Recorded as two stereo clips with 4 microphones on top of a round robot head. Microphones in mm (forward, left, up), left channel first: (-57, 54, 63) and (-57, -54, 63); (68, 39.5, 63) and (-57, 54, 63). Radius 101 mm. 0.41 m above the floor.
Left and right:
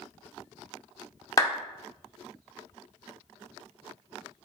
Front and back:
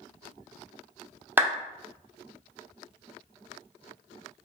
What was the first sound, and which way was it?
A clap, 110° left.